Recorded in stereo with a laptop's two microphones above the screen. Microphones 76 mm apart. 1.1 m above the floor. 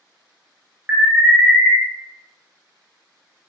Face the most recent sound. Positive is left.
turn(degrees=-20)  # may be behind; listen again after turning